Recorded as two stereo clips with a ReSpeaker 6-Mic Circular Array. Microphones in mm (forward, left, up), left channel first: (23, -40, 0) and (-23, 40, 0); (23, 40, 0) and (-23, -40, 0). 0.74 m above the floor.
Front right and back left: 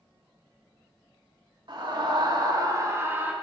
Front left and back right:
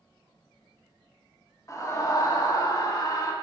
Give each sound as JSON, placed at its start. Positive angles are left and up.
{"t": 1.7, "sound": "a scream", "azimuth_deg": 105, "distance_m": 1.9}